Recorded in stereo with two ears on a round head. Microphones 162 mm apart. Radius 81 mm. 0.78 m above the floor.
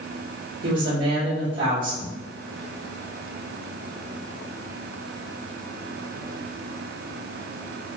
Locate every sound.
0.6 s a woman speaking: 70° right (ahead or behind), 3 m